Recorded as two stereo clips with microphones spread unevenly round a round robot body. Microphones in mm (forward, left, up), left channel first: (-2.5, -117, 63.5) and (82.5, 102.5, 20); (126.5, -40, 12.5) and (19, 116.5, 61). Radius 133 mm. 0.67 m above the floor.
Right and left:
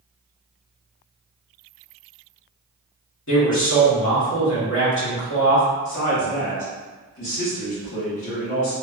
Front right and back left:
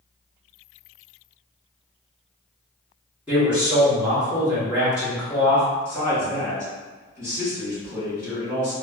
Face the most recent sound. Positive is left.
turn(degrees=-150)